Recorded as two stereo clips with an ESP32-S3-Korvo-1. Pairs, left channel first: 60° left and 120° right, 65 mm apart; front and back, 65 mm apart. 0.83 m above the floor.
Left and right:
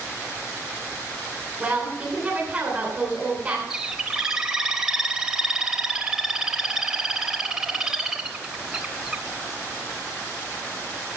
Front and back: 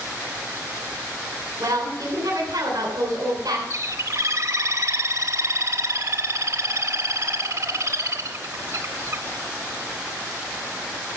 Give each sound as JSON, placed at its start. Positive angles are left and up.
{"t": 1.6, "sound": "a woman speaking", "azimuth_deg": 170, "distance_m": 3.0}
{"t": 3.7, "sound": "a bird", "azimuth_deg": 160, "distance_m": 0.9}